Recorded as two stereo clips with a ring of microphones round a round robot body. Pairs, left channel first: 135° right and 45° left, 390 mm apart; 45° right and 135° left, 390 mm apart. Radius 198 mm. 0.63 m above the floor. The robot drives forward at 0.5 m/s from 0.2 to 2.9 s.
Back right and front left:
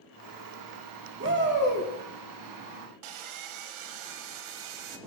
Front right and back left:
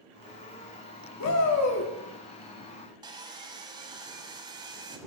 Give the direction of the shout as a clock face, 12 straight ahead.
12 o'clock.